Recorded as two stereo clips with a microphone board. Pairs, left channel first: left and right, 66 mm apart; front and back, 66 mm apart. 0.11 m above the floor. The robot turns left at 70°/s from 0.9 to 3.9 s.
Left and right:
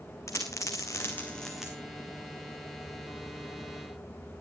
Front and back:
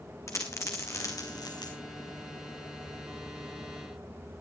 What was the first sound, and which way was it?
A dropped coin, 45° left.